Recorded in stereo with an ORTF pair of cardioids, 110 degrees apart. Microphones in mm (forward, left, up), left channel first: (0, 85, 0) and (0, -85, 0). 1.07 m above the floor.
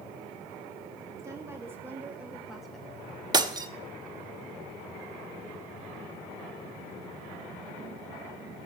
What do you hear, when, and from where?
1.2 s a woman speaking: 15° right, 1.4 m; by 2.9 s 5° left, 0.6 m
3.3 s breaking glass: 25° right, 1.0 m